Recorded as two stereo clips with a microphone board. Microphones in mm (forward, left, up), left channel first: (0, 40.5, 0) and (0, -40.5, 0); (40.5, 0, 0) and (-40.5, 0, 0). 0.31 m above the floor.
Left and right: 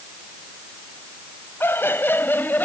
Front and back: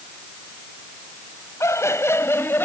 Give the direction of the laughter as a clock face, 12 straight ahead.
11 o'clock.